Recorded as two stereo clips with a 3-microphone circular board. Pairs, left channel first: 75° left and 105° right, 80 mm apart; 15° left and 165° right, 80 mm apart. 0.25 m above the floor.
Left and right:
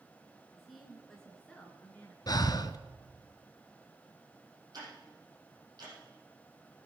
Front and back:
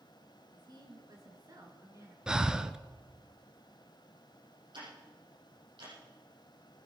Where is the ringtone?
No ringtone in this recording.